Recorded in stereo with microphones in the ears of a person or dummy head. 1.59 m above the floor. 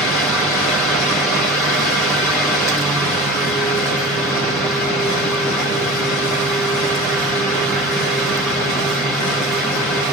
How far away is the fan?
About 1.2 m.